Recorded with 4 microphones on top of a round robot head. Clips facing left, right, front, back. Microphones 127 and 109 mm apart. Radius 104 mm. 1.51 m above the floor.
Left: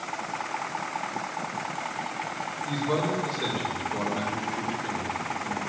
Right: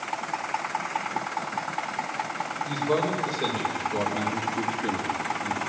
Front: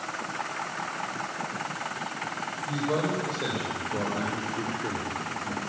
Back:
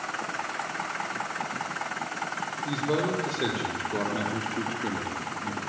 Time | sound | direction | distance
2.6 | a man speaking | 170° right | 6.5 m